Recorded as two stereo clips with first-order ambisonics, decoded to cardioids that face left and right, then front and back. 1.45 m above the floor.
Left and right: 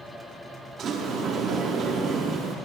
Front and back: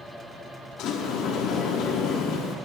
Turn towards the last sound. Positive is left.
turn(degrees=-35)